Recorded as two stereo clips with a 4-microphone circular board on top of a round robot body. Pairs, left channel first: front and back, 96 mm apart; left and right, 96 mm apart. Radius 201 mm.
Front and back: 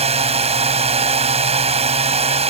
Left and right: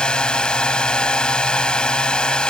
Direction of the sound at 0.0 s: 170° left.